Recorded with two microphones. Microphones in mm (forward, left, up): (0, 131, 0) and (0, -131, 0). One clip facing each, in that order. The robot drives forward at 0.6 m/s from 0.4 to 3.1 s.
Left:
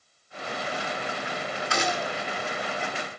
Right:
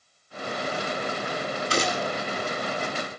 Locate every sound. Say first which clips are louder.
1.7 s a gunshot: right 2 dB; 35° right (ahead or behind), 1.6 m; by 2.1 s 40° right (ahead or behind), 1.4 m